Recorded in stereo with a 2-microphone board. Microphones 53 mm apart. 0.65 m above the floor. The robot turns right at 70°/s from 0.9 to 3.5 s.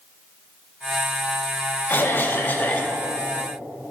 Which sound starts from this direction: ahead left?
A cough, at 1.9 s.